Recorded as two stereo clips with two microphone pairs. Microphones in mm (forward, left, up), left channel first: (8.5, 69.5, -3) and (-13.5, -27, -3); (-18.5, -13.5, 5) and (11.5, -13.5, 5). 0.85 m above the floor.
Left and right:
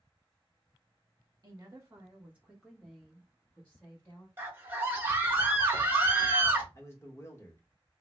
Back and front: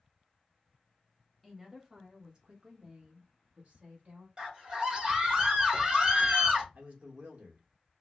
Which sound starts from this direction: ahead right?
A scream, at 4.4 s.